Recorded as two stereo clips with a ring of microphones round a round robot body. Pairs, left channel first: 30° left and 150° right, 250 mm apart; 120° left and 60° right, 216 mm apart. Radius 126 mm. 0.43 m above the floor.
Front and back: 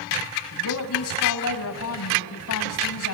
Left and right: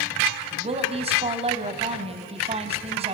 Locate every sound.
0.5 s a woman speaking: straight ahead, 2.5 m